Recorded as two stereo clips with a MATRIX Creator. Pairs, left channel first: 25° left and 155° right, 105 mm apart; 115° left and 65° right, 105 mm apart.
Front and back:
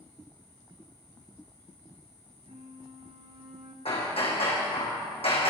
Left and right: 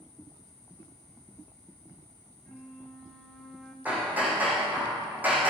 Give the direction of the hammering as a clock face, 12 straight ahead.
12 o'clock.